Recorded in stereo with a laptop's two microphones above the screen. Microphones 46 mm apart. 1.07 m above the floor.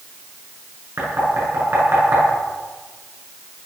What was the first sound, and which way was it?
Knocking, 60° right (ahead or behind).